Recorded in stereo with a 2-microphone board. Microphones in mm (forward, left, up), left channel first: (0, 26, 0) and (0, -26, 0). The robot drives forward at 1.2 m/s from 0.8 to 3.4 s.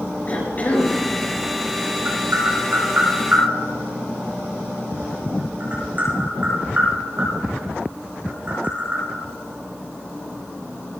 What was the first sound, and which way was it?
A cough, 35° left (ahead or behind).